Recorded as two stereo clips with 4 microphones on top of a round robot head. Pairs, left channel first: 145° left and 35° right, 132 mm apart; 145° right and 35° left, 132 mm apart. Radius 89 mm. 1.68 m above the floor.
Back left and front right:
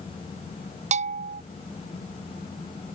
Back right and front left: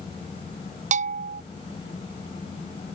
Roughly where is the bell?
Ahead.